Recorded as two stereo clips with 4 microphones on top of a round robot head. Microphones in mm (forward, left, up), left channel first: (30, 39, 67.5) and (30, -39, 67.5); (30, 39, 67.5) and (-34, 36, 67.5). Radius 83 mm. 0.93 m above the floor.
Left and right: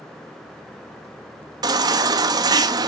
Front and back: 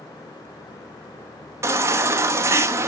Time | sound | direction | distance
1.6 | a baby crying | 130° right | 1.0 m